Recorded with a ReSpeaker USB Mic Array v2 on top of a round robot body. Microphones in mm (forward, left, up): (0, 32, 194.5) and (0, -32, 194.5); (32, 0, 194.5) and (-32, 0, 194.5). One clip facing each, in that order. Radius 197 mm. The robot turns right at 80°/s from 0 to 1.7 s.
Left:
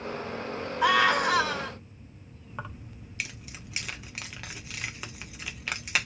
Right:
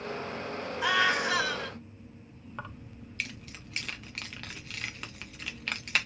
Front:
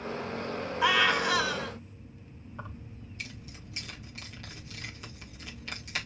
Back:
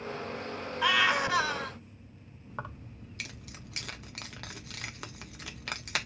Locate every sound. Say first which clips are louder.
0.8 s a scream: left 4 dB, front 1 dB; 80° left, 1.8 m; by 1.8 s 150° left, 1.8 m
2.5 s keys jangling: left 2 dB, back 3 dB; 170° left, 0.9 m